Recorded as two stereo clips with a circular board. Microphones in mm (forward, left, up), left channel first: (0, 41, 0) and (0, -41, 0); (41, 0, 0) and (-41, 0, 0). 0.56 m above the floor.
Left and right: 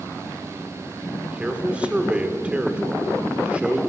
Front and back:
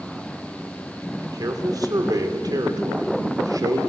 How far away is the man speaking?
About 2 m.